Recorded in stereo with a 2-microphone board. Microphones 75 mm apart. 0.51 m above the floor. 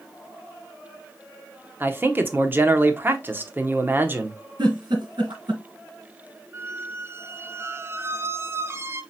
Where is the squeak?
35° right (ahead or behind), 0.6 m.